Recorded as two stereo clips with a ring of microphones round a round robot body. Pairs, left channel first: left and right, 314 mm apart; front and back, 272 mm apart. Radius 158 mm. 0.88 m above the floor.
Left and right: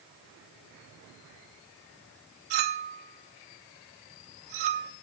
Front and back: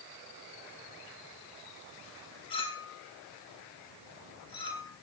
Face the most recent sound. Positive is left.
turn(degrees=-75)